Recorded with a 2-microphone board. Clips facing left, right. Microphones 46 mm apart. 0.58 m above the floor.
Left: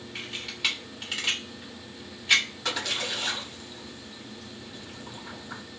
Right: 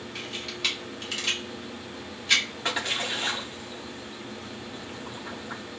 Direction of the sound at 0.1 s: 10° left (ahead or behind).